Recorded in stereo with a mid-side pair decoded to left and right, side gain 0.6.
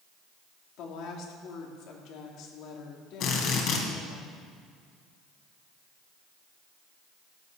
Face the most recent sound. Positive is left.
turn(degrees=60)